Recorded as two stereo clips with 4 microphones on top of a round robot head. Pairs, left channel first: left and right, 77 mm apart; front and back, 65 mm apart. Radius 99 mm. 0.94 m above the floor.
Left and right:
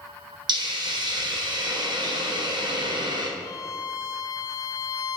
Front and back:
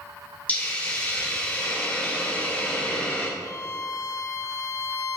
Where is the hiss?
70° right, 1.2 m.